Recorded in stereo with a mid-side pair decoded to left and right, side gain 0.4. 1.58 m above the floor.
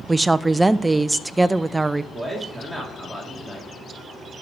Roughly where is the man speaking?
Ahead.